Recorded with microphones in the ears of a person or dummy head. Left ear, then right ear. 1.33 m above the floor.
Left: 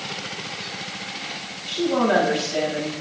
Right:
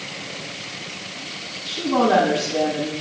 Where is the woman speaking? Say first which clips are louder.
Right 2 dB; 35° left (ahead or behind), 7 m.